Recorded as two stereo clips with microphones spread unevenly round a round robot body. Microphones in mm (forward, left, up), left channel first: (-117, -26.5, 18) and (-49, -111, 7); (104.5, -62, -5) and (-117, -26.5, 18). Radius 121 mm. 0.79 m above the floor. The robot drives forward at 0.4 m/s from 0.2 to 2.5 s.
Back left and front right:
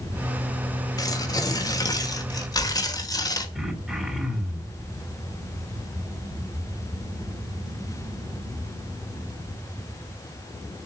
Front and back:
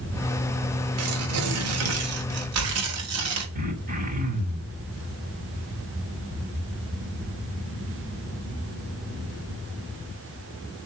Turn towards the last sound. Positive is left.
turn(degrees=-135)